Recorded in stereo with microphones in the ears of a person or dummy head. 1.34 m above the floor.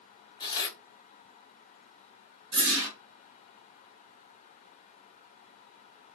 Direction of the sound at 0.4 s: 20° left (ahead or behind).